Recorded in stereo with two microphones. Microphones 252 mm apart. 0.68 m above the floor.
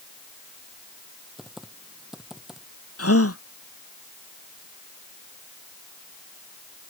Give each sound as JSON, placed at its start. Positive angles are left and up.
{"t": 1.4, "sound": "typing on a keyboard", "side_deg": 0}
{"t": 3.0, "sound": "a gasp", "side_deg": 75}